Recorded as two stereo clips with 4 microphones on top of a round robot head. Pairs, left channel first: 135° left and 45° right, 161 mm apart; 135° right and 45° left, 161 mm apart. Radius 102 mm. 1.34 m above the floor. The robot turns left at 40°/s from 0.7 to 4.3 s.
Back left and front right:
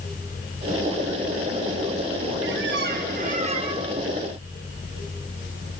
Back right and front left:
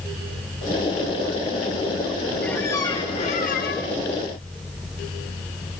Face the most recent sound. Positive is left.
turn(degrees=-125)